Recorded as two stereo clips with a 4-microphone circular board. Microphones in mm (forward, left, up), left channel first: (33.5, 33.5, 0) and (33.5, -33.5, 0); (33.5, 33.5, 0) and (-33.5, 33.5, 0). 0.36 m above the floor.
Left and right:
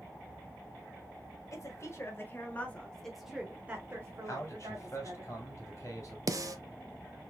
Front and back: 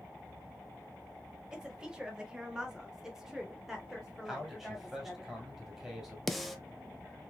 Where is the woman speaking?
105° left, 1.5 m; by 5.2 s 85° right, 1.8 m.